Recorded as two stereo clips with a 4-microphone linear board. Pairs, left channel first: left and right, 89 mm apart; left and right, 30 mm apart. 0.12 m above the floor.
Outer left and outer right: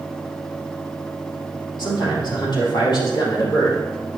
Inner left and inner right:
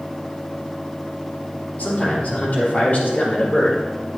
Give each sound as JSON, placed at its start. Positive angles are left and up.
{"t": 1.8, "sound": "a man speaking", "side_deg": 55, "distance_m": 4.0}